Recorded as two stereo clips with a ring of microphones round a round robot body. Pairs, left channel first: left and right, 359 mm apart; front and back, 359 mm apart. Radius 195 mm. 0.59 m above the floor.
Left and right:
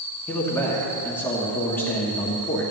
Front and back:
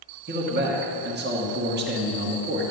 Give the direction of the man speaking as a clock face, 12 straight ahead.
6 o'clock.